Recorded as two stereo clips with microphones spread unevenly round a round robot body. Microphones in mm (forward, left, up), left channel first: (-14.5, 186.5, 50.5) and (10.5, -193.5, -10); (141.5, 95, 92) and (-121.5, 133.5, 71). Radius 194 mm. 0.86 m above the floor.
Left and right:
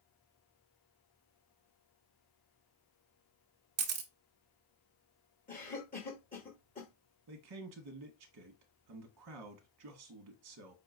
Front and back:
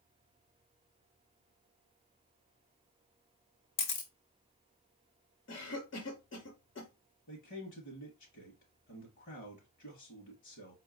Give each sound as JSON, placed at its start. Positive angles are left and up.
{"t": 3.8, "sound": "a camera shutter", "azimuth_deg": -30, "distance_m": 0.8}
{"t": 5.5, "sound": "a cough", "azimuth_deg": 20, "distance_m": 1.2}
{"t": 7.3, "sound": "a man speaking", "azimuth_deg": -55, "distance_m": 0.8}